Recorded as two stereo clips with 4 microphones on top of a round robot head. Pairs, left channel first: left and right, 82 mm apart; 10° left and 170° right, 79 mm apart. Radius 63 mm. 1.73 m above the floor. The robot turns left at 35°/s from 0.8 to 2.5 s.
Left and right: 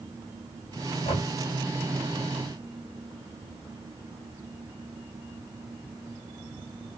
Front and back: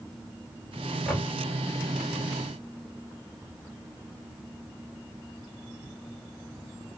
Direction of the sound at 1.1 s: 95° left.